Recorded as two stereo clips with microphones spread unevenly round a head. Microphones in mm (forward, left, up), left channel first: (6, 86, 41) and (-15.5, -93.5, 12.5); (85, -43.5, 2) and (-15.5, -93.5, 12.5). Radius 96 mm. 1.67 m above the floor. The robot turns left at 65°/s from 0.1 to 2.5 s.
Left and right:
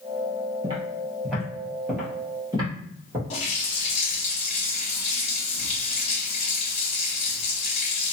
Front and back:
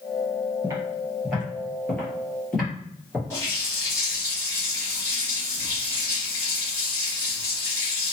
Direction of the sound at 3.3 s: 100° left.